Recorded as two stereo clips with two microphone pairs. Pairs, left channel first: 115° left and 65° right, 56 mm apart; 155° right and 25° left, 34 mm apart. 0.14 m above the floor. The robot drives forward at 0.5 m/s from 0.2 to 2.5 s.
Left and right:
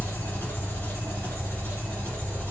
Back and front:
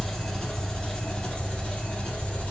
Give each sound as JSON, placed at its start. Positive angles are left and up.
{"t": 0.0, "sound": "an engine running", "azimuth_deg": 125, "distance_m": 1.4}